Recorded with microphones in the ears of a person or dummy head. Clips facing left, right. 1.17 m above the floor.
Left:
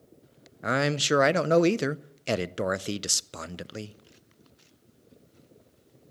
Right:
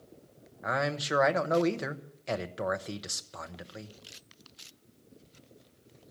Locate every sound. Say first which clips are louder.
0.6 s a man speaking: left 5 dB; 45° left (ahead or behind), 0.5 m